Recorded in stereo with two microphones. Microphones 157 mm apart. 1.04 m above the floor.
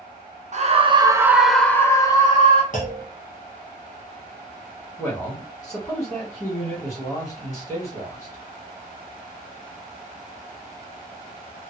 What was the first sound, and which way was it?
A scream, 50° right (ahead or behind).